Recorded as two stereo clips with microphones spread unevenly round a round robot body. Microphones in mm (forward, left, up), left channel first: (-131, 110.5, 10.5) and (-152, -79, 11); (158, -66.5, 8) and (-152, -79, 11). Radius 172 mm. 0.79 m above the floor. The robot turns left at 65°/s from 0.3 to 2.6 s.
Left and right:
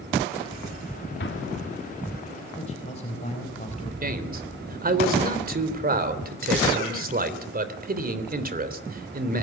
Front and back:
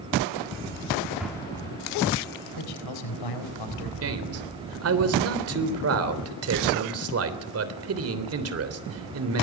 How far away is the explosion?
About 1.8 m.